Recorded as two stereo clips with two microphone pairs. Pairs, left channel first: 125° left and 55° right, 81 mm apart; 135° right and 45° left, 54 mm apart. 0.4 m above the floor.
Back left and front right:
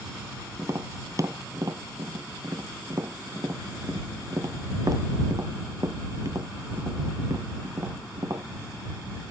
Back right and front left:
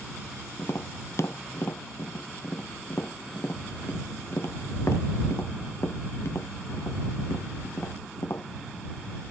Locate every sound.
0.6 s tapping: 100° right